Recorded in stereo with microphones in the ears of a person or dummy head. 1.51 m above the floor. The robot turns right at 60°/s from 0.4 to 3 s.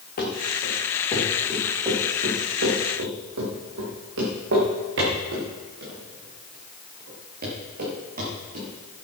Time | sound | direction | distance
0.2 | running footsteps | 55° left (ahead or behind) | 5 m